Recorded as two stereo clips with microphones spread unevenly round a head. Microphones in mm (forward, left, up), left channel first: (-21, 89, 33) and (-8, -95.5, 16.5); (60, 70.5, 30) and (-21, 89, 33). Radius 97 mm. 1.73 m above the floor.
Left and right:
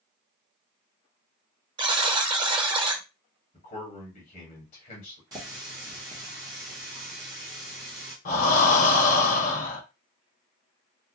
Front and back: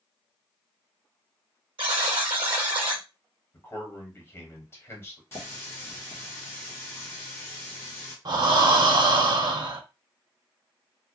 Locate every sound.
1.8 s a buzzer: 150° right, 0.5 m
3.5 s a man speaking: 45° left, 1.3 m
5.3 s a running tap: 30° right, 0.8 m
8.2 s breathing: 140° left, 0.6 m